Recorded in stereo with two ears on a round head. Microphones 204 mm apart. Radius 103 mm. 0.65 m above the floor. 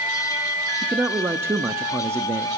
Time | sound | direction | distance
0.8 | a man speaking | 10° right (ahead or behind) | 0.6 m